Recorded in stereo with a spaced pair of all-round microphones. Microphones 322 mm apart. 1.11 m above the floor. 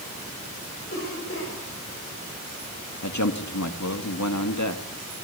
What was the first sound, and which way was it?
A cough, 40° left (ahead or behind).